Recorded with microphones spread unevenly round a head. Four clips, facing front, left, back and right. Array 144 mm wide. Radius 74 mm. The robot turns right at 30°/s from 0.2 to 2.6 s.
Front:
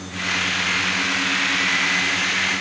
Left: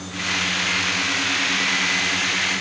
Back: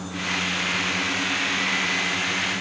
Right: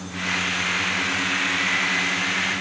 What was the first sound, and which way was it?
Only background noise.